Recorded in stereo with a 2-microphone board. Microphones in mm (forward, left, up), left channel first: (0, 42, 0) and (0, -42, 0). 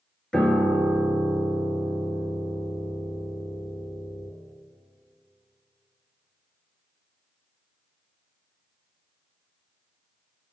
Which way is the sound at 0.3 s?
10° left (ahead or behind).